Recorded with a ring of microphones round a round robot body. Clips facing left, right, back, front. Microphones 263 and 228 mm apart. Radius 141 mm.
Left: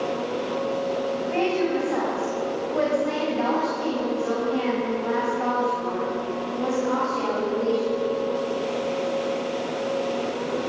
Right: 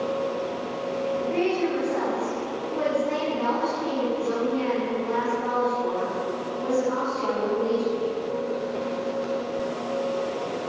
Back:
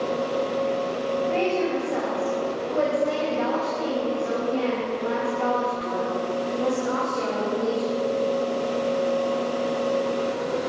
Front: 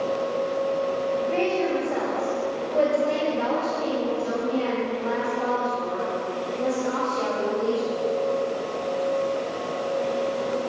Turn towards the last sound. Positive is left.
turn(degrees=110)